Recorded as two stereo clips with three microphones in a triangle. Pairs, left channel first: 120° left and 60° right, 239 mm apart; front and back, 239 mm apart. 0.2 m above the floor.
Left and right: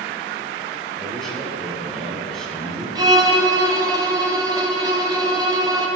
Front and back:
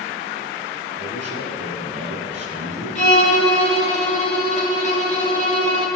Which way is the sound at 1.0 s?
155° right.